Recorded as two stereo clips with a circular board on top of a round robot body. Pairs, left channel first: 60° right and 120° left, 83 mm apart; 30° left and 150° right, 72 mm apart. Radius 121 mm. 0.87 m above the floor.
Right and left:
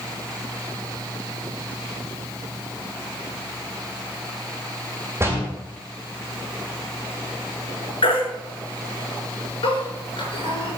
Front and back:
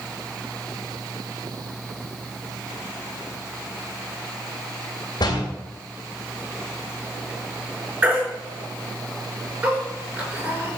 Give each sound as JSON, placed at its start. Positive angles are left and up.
{"t": 5.2, "sound": "a door slam", "azimuth_deg": 55, "distance_m": 3.0}
{"t": 8.0, "sound": "a baby crying", "azimuth_deg": -80, "distance_m": 4.5}